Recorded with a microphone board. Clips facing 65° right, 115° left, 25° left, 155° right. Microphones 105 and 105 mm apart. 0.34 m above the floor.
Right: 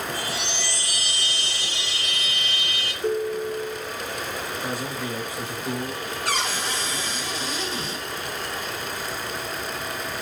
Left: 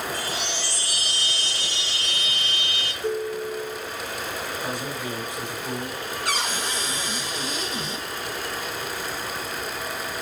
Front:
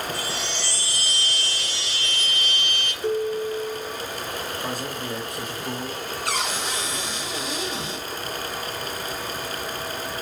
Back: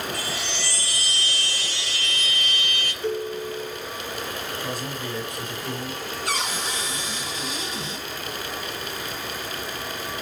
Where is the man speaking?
45° left, 2.5 m.